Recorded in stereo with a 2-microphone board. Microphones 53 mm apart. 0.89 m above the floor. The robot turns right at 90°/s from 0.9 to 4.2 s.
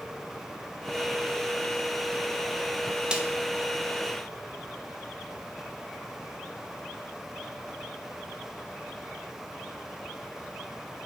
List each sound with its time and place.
3.1 s a snare drum: 15° right (ahead or behind), 0.8 m; by 3.2 s 25° right (ahead or behind), 0.8 m